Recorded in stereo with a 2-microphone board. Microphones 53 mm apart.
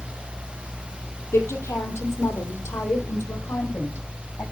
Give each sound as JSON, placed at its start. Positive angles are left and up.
{"t": 1.3, "sound": "a woman speaking", "side_deg": 50, "distance_m": 3.0}